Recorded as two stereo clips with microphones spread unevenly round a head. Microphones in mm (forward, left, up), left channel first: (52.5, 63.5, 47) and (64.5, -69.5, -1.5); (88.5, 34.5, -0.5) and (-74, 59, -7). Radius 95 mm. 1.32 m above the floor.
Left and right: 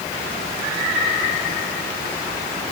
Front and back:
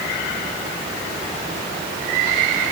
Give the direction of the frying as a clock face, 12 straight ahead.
No frying in this recording.